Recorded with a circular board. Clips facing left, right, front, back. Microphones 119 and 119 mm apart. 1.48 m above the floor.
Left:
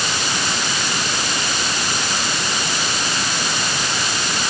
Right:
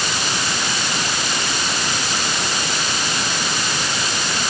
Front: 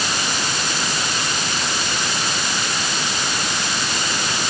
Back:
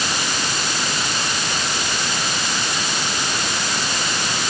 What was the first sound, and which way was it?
Only background noise.